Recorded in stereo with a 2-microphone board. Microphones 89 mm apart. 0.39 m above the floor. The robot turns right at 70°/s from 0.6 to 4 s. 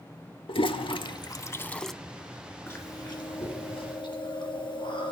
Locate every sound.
0.5 s a toilet flushing: 75° left (ahead or behind), 0.5 m; by 1.9 s 5° left (ahead or behind), 0.5 m
2.7 s chewing: 20° left, 3 m; by 5.1 s 115° left, 3 m